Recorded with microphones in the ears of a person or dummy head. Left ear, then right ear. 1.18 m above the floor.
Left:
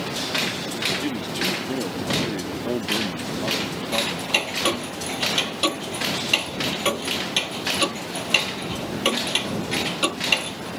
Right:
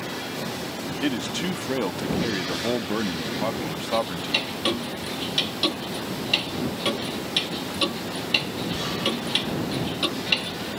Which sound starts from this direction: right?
A man speaking, at 1.0 s.